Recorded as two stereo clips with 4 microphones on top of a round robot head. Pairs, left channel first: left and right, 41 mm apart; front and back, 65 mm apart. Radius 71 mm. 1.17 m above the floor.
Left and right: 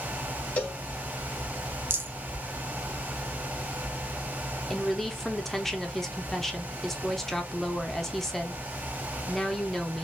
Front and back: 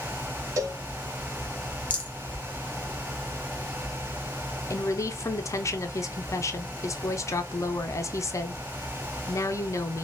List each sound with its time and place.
0.6 s a cowbell: 140° left, 1.0 m
1.9 s a rattle: 70° right, 1.0 m
4.7 s a woman speaking: 5° left, 0.8 m